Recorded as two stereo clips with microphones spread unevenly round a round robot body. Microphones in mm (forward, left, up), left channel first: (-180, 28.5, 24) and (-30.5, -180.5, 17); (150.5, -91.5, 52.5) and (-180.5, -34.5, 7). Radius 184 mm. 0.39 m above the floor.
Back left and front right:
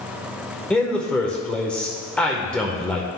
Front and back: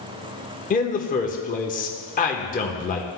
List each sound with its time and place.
0.7 s a man speaking: 40° left, 0.8 m